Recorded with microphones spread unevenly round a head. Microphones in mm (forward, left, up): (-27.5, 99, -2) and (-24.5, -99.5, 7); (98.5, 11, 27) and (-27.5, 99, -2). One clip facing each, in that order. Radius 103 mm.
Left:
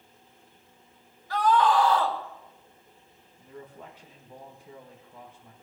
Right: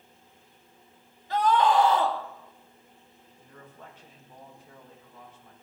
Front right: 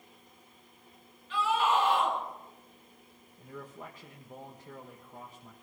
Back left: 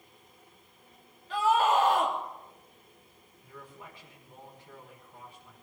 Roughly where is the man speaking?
Ahead.